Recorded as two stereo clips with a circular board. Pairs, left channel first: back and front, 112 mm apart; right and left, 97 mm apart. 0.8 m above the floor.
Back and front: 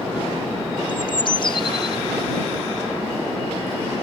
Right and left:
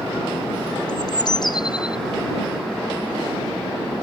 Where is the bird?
135° right.